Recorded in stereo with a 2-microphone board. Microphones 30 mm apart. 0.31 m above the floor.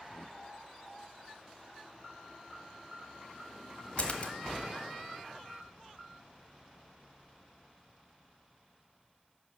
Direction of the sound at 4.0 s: 45° left (ahead or behind).